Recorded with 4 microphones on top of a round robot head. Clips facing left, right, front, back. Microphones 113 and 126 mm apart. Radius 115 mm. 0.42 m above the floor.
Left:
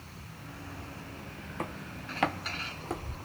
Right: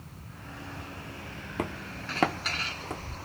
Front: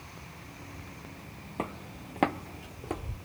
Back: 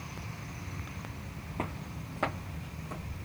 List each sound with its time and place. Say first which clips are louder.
1.6 s footsteps: right 4 dB, front 2 dB; 80° right, 1.0 m; by 3.1 s 15° left, 0.9 m